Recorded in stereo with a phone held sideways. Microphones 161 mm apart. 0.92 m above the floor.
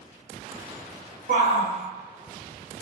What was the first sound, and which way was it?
A shout, 55° right (ahead or behind).